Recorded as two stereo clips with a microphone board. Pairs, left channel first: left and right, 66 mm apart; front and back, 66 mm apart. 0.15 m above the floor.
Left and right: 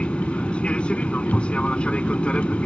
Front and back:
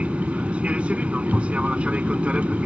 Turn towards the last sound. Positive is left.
turn(degrees=135)